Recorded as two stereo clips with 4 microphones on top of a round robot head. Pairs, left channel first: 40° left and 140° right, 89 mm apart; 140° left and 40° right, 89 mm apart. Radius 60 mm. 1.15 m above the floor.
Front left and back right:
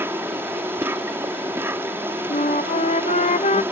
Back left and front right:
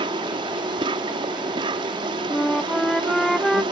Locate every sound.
0.0 s an insect: 75° right
2.3 s a flute: 55° left